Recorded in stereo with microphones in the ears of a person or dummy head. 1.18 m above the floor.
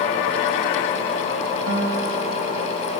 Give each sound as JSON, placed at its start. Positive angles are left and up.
{"t": 1.7, "sound": "a guitar", "side_deg": -45, "distance_m": 6.5}